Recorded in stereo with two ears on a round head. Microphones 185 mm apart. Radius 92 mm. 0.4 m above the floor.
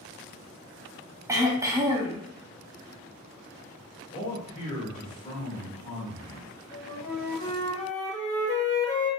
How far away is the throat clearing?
About 0.8 m.